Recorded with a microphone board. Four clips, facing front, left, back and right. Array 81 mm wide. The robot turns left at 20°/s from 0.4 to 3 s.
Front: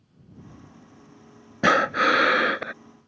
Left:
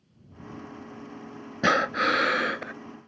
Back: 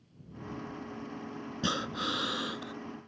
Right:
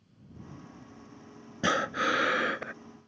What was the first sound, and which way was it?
Breathing, 25° left.